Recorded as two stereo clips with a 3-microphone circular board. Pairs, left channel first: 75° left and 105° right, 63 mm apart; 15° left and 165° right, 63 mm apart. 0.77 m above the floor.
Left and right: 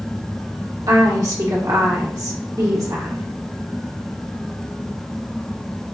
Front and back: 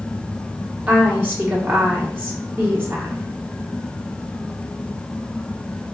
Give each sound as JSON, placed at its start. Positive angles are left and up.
{"t": 0.9, "sound": "a woman speaking", "azimuth_deg": -110, "distance_m": 1.5}